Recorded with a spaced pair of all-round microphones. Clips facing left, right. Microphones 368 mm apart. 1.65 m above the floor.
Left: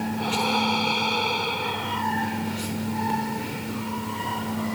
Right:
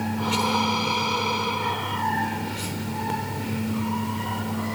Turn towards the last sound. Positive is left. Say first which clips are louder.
# right 1 dB
turn(degrees=-5)  # may be behind; listen again after turning